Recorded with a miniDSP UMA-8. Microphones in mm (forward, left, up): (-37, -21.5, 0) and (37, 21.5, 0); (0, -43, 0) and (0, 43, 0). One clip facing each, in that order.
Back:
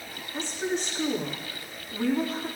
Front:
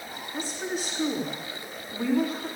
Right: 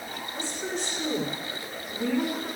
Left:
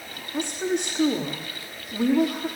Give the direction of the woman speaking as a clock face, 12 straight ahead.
8 o'clock.